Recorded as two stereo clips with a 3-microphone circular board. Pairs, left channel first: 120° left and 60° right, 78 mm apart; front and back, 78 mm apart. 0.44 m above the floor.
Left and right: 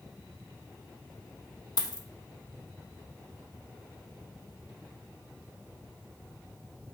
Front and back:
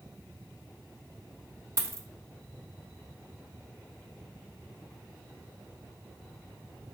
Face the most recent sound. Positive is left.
turn(degrees=135)